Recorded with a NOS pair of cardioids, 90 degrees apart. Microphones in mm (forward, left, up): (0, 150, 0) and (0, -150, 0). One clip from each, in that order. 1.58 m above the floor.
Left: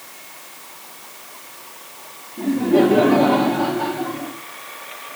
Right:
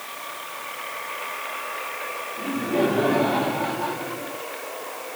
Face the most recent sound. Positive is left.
turn(degrees=55)